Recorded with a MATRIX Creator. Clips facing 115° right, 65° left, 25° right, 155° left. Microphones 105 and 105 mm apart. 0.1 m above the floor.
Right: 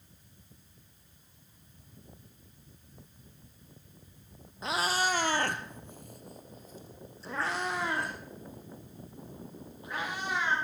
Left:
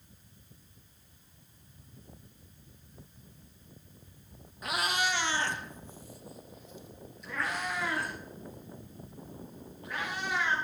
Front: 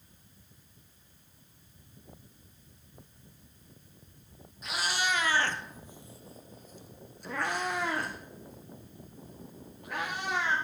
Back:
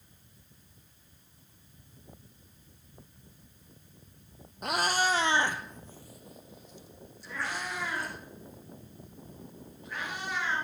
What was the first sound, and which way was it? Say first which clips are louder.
A cat meowing: right 2 dB, back 4 dB; 175° right.